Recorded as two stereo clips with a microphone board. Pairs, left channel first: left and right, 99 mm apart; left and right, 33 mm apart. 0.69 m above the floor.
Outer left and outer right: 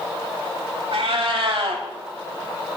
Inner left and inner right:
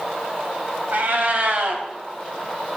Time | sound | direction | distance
0.9 | a cat meowing | 65° right (ahead or behind) | 1.0 m